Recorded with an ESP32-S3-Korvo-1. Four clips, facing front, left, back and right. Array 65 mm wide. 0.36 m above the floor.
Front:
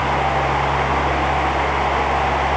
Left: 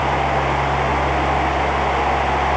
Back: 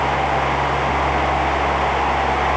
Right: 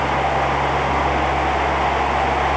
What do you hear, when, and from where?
Only background noise.